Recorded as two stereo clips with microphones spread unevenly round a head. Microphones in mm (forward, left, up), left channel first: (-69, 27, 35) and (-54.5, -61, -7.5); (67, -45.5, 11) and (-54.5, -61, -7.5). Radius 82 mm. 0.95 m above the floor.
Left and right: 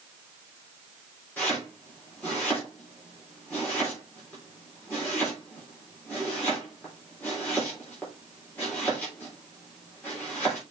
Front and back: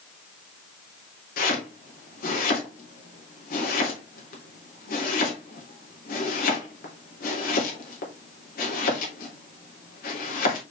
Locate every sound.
1.4 s chopping: 15° left, 3.5 m